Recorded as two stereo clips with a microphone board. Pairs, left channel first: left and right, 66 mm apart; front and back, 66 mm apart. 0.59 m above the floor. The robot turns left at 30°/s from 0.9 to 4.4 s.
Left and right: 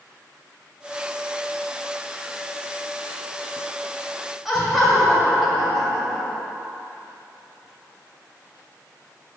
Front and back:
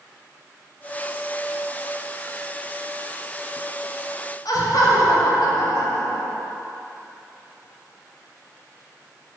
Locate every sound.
4.5 s laughter: 5° right, 2.5 m